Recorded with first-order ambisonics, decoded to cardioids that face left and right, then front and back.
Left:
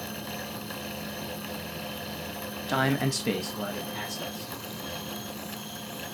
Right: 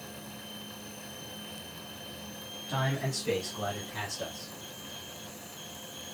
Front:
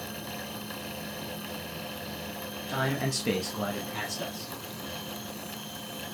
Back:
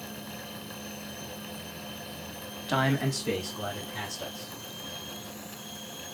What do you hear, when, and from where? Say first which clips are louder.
2.7 s a man speaking: left 6 dB, back 3 dB; 130° left, 0.9 m; by 4.5 s 15° left, 2.5 m